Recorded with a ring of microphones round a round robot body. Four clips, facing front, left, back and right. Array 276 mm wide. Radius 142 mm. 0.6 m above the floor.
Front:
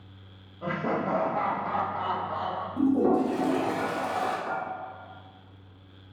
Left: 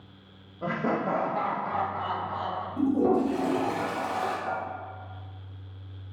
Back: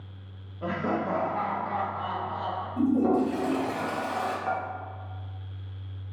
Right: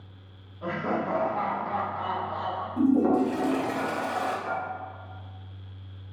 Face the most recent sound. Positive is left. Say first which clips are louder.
# even, back 2 dB
turn(degrees=-175)